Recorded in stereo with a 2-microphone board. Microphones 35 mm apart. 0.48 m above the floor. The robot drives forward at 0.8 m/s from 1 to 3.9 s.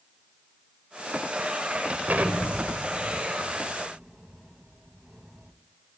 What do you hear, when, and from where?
2.1 s an explosion: 55° right (ahead or behind), 1.2 m; by 5.5 s 25° right (ahead or behind), 2 m